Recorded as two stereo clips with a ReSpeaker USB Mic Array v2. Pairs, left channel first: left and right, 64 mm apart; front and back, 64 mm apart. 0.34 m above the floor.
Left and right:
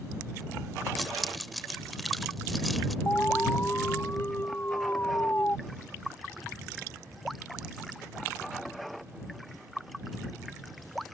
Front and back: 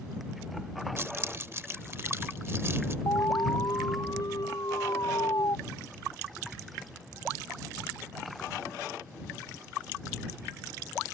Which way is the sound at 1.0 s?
Straight behind.